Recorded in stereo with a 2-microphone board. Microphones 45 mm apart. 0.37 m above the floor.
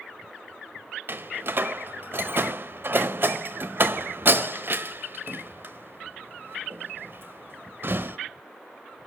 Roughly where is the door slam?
Right.